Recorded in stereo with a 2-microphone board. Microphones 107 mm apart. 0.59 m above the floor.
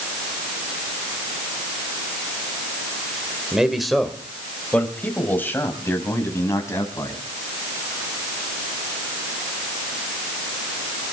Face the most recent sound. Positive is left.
turn(degrees=30)  # may be behind; listen again after turning